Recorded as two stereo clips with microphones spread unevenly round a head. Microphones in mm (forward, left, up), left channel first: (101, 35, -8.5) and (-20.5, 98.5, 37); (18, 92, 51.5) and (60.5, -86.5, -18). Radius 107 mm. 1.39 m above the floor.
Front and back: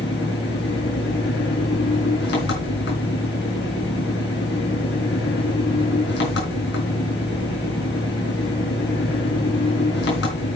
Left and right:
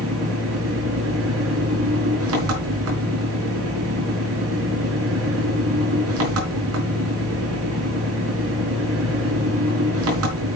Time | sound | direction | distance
0.0 | an engine running | 65° right | 4 m